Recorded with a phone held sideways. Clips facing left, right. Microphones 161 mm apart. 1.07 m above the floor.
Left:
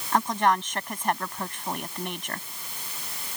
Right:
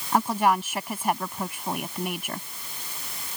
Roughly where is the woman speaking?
Centre.